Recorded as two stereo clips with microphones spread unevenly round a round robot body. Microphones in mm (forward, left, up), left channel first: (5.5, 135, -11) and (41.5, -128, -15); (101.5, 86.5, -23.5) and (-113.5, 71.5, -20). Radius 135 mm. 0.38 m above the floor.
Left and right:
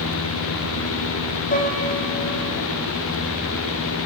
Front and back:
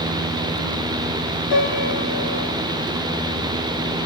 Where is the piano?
35° left, 5.5 m.